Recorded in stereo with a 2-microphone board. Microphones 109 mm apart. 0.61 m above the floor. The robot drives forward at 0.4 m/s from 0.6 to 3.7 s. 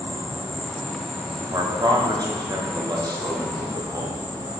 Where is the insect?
50° left (ahead or behind), 1.8 m; by 4.6 s 30° left (ahead or behind), 2.5 m.